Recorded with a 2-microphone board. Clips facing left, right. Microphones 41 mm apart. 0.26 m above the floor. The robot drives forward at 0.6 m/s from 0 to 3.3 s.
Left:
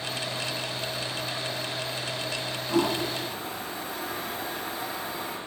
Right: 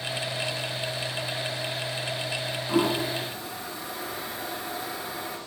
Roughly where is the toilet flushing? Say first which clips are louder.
Right 1 dB; centre.